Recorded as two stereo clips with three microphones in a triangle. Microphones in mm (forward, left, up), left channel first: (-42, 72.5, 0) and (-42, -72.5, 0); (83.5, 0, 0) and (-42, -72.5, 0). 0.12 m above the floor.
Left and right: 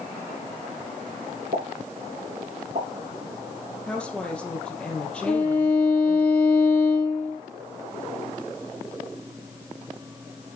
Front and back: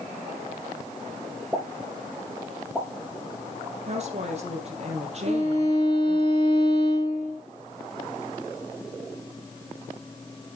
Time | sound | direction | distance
1.5 | a pop | 65° right | 5 m
3.9 | a woman speaking | 175° left | 3.5 m
5.3 | a violin | 165° left | 4.5 m